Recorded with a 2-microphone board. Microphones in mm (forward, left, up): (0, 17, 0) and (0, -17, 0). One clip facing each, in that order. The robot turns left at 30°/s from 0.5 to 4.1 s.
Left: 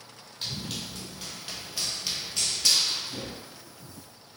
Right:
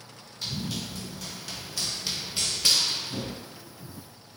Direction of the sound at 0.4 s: 60° left (ahead or behind).